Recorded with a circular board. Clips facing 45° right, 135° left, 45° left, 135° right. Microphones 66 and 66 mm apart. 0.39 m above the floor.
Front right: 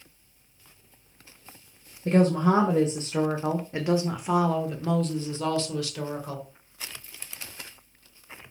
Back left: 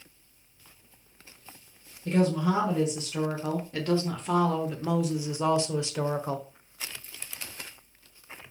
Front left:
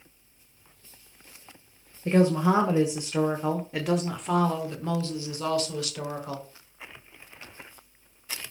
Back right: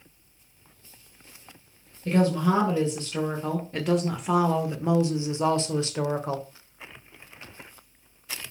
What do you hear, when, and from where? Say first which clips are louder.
2.0 s a woman speaking: front right 4 dB, front left 1 dB; 15° right, 1.5 m; by 6.5 s 175° right, 1.4 m